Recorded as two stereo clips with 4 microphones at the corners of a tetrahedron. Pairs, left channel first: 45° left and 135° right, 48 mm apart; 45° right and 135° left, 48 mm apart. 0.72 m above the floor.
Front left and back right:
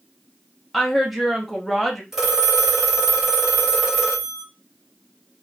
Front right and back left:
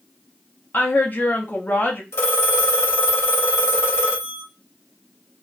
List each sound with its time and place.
0.7 s a woman speaking: 45° right, 0.6 m
2.1 s a phone ringing: 55° right, 0.9 m